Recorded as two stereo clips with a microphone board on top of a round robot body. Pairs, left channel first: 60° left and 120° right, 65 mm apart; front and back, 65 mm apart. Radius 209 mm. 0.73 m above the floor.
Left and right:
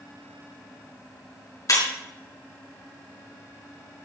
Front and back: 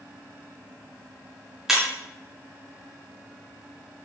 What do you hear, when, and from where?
1.7 s breaking glass: 100° left, 4.5 m